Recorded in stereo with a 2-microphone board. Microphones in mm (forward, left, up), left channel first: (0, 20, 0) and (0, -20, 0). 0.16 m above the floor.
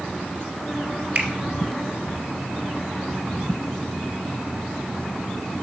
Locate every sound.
1.1 s a finger snap: 45° right (ahead or behind), 2 m